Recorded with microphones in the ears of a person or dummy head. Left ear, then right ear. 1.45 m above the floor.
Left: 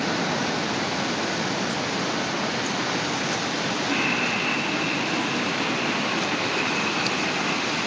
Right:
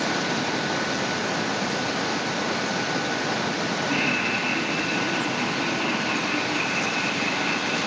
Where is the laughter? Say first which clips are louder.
Even; 15° left (ahead or behind), 7 m; by 7.9 s 5° right (ahead or behind), 10 m.